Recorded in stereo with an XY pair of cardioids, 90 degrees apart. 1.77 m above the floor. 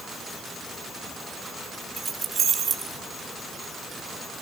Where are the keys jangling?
40° right, 3.5 m; by 3.0 s 55° right, 4 m.